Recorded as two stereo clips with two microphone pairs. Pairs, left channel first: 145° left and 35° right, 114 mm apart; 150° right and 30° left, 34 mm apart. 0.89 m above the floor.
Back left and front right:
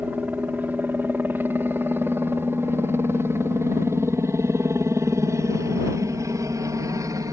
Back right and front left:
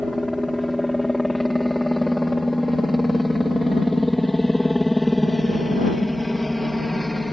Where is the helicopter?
70° right; by 7.3 s 65° right.